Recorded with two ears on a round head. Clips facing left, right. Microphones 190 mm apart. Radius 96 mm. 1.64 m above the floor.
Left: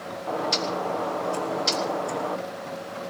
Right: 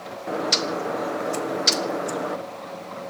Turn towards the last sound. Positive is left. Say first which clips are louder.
# right 2 dB
turn(degrees=-20)  # may be behind; listen again after turning